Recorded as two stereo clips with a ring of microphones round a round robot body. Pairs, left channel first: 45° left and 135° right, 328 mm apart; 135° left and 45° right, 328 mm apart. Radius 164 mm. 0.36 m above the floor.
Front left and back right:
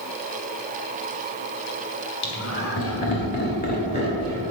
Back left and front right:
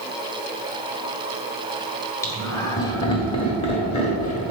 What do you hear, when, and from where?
2.2 s laughter: 55° left, 1.9 m; by 4.5 s 115° left, 1.5 m